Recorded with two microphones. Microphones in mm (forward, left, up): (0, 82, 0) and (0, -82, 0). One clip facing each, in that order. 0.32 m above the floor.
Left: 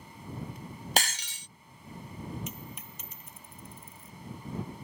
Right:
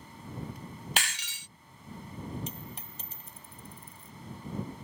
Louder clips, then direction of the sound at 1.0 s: Left 7 dB; 40° left (ahead or behind).